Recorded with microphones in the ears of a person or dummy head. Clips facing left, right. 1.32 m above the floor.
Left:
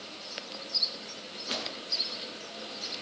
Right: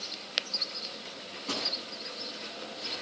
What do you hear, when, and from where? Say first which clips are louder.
1.1 s a microwave: right 3 dB; 65° right (ahead or behind), 9.5 m